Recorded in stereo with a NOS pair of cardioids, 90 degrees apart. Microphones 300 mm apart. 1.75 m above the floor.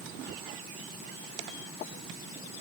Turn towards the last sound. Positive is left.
No sound to turn to.